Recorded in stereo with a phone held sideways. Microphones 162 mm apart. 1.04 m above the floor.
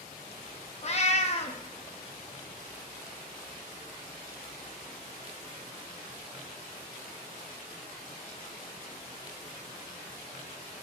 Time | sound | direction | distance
0.8 | a cat meowing | 40° left (ahead or behind) | 0.7 m